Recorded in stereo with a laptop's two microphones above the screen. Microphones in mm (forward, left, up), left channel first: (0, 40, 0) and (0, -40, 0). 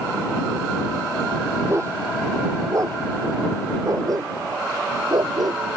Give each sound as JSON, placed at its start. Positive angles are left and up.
{"t": 1.7, "sound": "a dog barking", "side_deg": -35}